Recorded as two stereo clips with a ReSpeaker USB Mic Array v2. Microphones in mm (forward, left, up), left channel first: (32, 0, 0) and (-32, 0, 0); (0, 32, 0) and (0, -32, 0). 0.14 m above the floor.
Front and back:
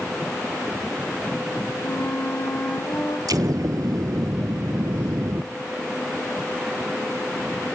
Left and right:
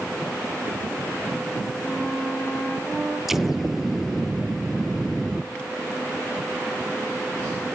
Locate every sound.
1.8 s a flute: 10° right, 5.5 m
3.3 s an explosion: 175° right, 0.8 m